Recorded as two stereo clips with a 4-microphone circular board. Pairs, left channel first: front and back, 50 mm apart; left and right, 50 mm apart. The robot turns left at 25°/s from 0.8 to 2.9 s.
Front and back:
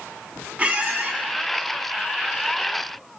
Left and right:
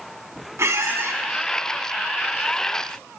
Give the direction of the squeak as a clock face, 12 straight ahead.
4 o'clock.